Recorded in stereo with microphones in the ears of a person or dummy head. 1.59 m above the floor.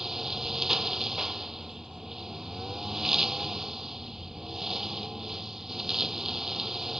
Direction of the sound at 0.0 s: Centre (ahead or behind).